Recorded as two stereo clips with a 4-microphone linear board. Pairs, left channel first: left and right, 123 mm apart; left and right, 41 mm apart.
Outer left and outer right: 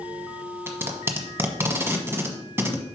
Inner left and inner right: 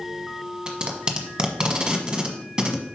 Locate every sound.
0.7 s tape being pulled: 20° right (ahead or behind), 1.1 m